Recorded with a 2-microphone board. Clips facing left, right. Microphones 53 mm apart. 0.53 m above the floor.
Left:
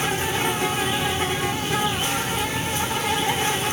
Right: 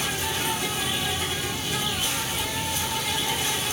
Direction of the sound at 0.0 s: 40° left (ahead or behind).